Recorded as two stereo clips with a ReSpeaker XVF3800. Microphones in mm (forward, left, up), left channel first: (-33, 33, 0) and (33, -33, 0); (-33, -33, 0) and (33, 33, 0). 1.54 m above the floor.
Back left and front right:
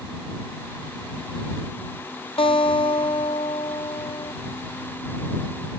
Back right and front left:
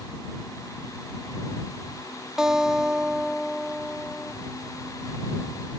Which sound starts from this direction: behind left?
A guitar, at 2.4 s.